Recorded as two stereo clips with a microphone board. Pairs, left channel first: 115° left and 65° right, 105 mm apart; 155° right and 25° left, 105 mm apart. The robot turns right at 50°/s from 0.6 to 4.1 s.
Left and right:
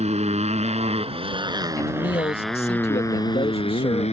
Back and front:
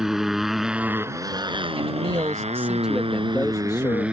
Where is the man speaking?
50° left; by 4.1 s 165° left.